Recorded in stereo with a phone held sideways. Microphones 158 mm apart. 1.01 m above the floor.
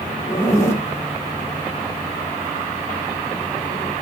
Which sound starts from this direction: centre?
A zipper, at 0.3 s.